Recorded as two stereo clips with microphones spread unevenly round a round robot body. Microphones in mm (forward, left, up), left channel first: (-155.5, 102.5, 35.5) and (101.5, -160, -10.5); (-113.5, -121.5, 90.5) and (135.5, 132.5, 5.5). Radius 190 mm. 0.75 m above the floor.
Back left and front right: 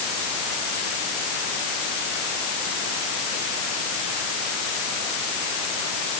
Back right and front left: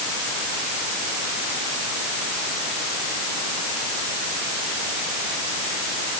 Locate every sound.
Only background noise.